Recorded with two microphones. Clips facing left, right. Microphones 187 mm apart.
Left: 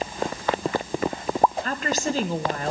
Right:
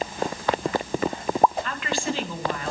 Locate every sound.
1.6 s a woman speaking: 40° left (ahead or behind), 1.6 m